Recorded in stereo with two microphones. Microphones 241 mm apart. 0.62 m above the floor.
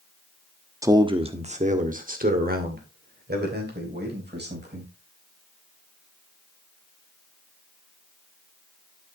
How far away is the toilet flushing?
I don't hear a toilet flushing.